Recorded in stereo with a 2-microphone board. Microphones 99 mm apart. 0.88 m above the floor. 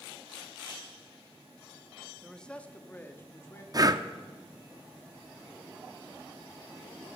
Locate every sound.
2.2 s a man speaking: centre (ahead or behind), 0.8 m; by 3.6 s 25° left (ahead or behind), 1.7 m
3.7 s breathing: 40° right (ahead or behind), 0.5 m